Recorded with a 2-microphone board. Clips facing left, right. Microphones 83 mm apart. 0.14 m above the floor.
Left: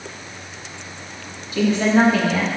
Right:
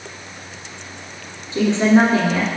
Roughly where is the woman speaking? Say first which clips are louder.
Right 2 dB; right.